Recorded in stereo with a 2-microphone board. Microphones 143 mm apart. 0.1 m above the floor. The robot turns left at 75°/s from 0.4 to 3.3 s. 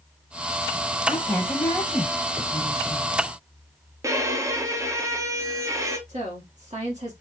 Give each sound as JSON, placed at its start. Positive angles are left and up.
{"t": 1.1, "sound": "a woman speaking", "azimuth_deg": 65, "distance_m": 3.5}
{"t": 4.0, "sound": "a violin", "side_deg": -20, "distance_m": 0.6}
{"t": 6.1, "sound": "a woman speaking", "side_deg": -55, "distance_m": 1.8}